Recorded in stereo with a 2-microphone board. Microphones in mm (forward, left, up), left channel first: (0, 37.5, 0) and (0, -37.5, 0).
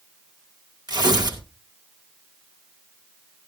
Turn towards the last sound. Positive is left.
turn(degrees=-70)  # may be behind; listen again after turning